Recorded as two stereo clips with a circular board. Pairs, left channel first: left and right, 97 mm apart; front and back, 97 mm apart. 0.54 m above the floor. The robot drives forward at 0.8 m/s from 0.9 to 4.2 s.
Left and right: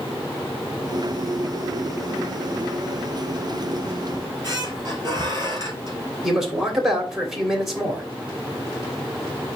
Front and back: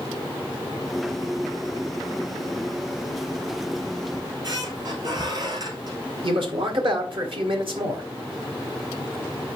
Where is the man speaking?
175° right, 2.5 m.